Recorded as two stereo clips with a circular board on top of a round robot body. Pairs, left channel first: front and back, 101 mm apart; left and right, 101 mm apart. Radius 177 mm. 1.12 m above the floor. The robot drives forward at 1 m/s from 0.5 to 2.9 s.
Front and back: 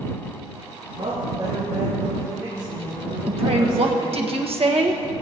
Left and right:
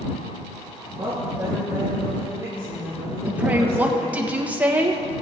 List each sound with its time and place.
1.0 s a woman speaking: 145° right, 2.5 m; by 4.3 s 160° right, 4 m
3.3 s a woman speaking: 165° right, 1.4 m